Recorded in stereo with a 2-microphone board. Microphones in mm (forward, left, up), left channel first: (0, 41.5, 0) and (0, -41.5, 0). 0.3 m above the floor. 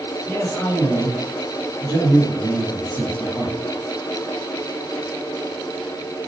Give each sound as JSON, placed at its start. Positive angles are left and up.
{"t": 0.3, "sound": "a man speaking", "side_deg": 25, "distance_m": 2.0}